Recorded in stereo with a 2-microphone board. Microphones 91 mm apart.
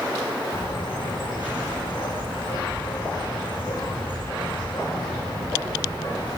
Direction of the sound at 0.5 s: 60° left (ahead or behind).